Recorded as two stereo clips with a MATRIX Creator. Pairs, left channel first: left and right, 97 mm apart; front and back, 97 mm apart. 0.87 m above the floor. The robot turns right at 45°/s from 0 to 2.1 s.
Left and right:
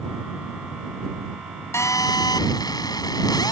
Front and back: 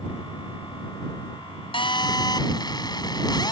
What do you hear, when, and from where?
1.7 s a phone buzzing: 30° left; by 3.5 s 45° left